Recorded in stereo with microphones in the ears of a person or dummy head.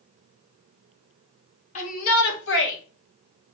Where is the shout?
40° left (ahead or behind), 1.5 m; by 2.8 s 70° left (ahead or behind), 1.7 m.